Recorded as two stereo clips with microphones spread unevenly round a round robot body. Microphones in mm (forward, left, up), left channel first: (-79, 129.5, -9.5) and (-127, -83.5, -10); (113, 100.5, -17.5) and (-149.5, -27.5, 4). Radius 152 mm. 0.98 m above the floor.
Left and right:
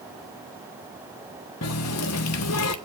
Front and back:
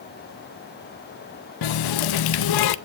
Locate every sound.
1.6 s a running tap: 35° left, 0.7 m